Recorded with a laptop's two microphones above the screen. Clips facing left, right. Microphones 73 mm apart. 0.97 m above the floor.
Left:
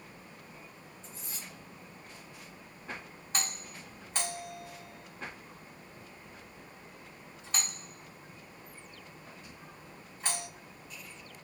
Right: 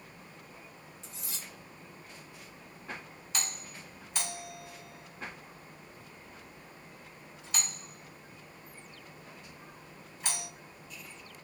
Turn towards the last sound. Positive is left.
turn(degrees=40)  # may be behind; listen again after turning